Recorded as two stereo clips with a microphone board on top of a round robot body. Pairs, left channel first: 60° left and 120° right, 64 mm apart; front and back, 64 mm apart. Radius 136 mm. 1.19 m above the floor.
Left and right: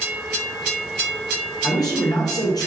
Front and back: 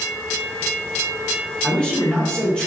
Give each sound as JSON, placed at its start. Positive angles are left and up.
{"t": 1.6, "sound": "a man speaking", "azimuth_deg": 75, "distance_m": 0.7}